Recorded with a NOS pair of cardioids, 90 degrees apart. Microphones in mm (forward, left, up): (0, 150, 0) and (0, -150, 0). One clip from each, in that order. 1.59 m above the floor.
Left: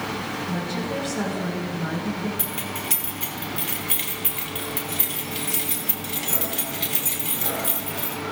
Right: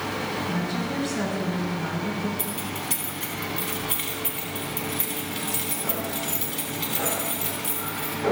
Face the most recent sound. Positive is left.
turn(degrees=25)